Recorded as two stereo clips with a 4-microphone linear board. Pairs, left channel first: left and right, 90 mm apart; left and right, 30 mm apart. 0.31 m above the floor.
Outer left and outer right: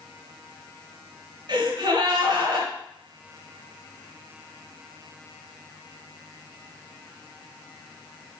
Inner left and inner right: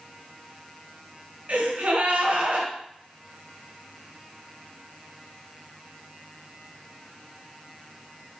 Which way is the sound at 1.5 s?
50° right (ahead or behind).